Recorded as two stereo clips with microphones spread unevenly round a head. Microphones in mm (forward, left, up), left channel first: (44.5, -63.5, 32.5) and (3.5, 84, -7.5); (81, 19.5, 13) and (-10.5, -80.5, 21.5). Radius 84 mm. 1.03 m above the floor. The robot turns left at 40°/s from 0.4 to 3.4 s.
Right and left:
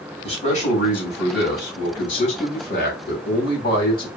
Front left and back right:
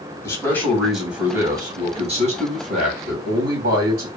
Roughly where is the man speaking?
Ahead.